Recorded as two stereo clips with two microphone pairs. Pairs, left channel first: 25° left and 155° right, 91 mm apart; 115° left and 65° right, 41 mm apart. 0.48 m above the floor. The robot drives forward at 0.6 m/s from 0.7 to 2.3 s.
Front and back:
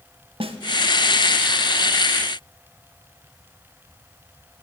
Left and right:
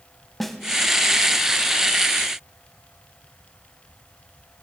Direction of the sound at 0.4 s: 160° right.